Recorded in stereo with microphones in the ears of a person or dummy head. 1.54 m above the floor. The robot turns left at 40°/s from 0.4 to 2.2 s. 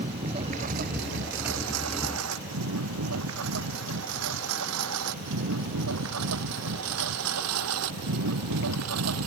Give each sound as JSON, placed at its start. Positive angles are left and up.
{"t": 0.0, "sound": "a lawn mower", "side_deg": -35}